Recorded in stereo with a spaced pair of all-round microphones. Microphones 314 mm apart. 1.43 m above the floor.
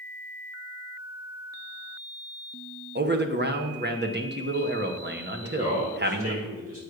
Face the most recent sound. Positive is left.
turn(degrees=-45)  # may be behind; listen again after turning